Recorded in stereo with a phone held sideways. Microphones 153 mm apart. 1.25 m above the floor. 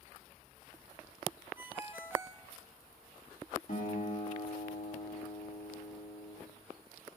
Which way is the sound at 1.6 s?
15° right (ahead or behind).